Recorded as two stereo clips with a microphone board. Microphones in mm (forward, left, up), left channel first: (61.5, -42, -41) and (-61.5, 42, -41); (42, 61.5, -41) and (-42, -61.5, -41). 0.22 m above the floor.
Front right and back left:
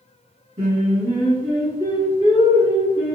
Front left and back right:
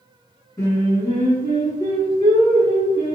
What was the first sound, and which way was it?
Singing, 115° left.